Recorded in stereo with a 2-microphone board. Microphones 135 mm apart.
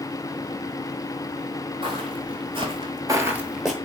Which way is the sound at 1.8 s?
40° right (ahead or behind).